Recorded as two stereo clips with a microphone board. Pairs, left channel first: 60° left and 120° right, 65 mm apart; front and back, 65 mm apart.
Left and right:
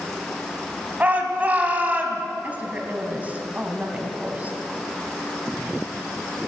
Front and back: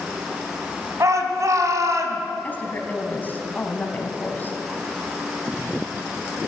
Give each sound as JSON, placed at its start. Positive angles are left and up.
{"t": 1.0, "sound": "a shout", "azimuth_deg": 180, "distance_m": 2.0}
{"t": 2.4, "sound": "a woman speaking", "azimuth_deg": -55, "distance_m": 1.9}